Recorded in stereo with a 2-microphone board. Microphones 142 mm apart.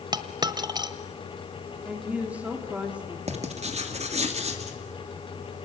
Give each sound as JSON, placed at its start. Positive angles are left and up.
{"t": 0.1, "sound": "a dropped coin", "side_deg": -30, "distance_m": 1.3}
{"t": 1.9, "sound": "a woman speaking", "side_deg": -10, "distance_m": 3.0}
{"t": 3.3, "sound": "writing", "side_deg": -50, "distance_m": 2.5}